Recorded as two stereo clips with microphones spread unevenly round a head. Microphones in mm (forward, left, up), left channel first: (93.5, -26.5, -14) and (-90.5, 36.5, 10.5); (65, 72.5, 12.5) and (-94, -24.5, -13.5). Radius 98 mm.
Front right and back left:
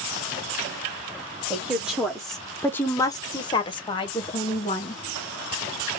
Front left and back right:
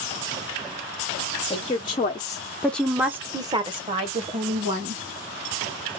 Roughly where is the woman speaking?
Left.